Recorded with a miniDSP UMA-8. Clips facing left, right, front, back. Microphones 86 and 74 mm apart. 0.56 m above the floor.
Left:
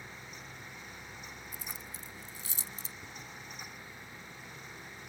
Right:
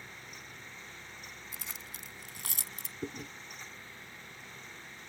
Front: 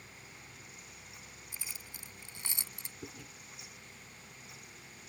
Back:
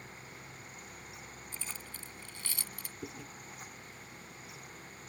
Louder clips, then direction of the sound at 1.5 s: Left 1 dB, back 2 dB; 75° right.